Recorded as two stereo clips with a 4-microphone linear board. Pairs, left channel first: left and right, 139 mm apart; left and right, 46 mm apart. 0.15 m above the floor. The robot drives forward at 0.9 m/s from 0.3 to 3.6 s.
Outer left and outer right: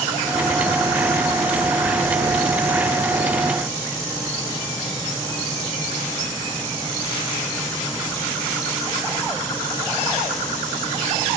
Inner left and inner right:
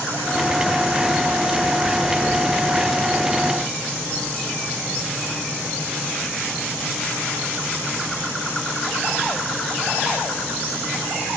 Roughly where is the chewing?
No chewing in this recording.